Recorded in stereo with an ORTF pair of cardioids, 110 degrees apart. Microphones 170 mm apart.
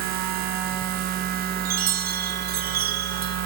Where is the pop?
No pop in this recording.